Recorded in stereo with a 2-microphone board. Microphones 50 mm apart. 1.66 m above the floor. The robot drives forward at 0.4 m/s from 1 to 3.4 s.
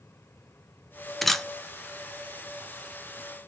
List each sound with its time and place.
1.2 s a camera shutter: 5° left (ahead or behind), 0.6 m